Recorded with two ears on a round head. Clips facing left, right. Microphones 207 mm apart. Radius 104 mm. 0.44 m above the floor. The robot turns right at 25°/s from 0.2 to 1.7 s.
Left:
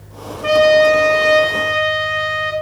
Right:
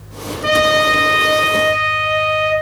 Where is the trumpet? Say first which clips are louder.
Left 5 dB; 35° right, 2.5 m; by 2.5 s straight ahead, 2.5 m.